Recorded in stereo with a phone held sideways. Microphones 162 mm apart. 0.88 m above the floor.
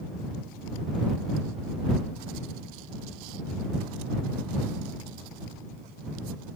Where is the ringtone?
I don't hear a ringtone.